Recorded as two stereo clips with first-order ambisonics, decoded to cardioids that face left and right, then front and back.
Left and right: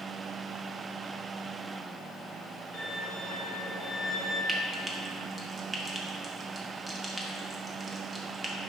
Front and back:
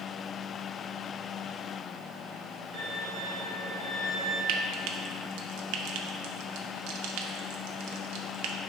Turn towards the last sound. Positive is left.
turn(degrees=-170)